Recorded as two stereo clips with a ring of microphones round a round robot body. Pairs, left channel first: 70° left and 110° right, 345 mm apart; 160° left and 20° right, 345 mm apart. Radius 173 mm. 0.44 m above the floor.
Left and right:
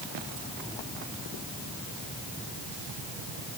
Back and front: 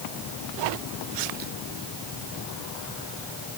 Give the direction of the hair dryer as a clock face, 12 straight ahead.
No hair dryer in this recording.